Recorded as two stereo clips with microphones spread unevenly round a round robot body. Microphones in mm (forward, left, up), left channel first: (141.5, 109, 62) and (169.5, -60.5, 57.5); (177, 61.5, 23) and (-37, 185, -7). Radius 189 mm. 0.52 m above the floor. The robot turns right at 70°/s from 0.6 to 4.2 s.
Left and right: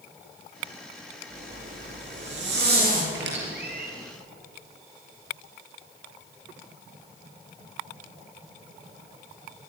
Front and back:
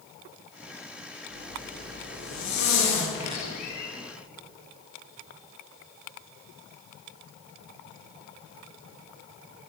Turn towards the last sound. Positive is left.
turn(degrees=-20)